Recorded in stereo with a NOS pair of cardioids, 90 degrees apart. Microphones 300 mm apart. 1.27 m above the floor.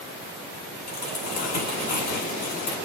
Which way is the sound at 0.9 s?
55° left.